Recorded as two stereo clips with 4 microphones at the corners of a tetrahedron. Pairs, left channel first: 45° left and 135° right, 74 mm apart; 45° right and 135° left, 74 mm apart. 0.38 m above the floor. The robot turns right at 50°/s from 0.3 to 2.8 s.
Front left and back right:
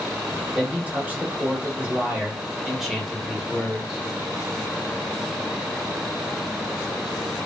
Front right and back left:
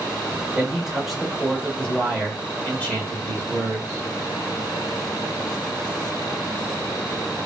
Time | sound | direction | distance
0.6 | a man speaking | 165° right | 1.1 m